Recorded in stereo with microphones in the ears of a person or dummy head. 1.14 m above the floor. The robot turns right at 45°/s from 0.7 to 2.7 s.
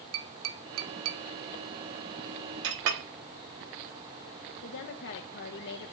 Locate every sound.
0.1 s tapping: 70° right (ahead or behind), 1.6 m; by 1.2 s 65° right (ahead or behind), 1.6 m
2.6 s a clink: 75° right (ahead or behind), 1.3 m
4.6 s a woman speaking: 55° left (ahead or behind), 1.0 m